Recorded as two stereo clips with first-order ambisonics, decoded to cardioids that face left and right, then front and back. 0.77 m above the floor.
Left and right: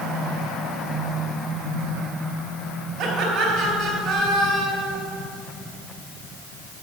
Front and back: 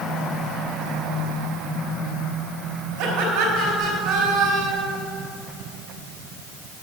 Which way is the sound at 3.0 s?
165° right.